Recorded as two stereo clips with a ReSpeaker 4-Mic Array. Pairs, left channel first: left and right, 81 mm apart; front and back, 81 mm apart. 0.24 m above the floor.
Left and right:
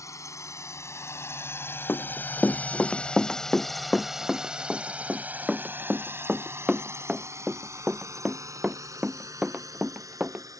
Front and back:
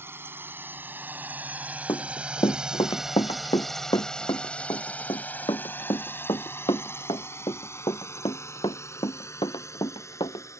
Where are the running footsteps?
25° left; by 10.5 s 15° right.